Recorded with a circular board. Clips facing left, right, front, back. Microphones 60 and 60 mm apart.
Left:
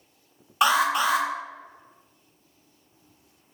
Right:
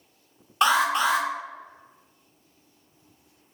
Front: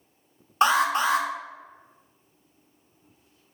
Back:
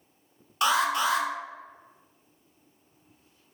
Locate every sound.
0.6 s an alarm: 10° left, 0.9 m